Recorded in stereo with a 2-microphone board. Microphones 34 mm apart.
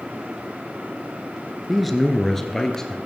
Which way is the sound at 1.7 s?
Centre (ahead or behind).